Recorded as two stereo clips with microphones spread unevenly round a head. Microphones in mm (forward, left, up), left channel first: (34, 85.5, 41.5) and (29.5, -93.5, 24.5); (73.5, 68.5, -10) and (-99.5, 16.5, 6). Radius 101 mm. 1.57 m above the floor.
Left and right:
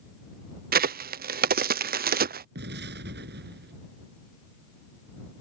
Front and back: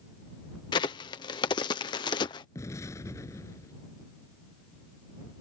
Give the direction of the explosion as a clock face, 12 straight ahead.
2 o'clock.